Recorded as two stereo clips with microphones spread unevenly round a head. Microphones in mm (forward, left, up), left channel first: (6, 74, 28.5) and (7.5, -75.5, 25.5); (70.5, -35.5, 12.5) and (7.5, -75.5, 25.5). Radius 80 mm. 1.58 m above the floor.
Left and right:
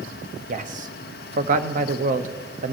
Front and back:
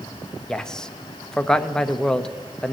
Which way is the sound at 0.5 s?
50° right.